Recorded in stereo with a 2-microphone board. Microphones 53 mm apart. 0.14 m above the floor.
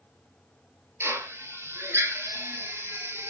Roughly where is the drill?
Right.